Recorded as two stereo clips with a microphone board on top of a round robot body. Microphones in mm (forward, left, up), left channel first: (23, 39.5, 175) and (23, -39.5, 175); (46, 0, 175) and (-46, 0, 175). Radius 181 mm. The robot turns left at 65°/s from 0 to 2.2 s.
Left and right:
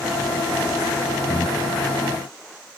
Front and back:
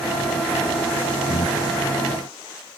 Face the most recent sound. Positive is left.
turn(degrees=-80)